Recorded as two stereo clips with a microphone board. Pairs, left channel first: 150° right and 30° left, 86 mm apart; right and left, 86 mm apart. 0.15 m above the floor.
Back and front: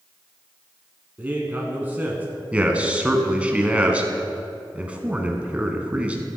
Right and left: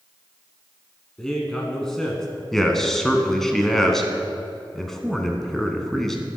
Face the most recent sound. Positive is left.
turn(degrees=-15)